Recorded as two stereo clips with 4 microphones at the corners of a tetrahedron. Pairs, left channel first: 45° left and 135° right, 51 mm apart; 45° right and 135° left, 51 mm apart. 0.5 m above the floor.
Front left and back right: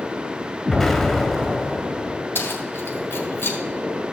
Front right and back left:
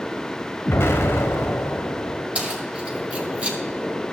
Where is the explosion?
45° right, 1.3 m.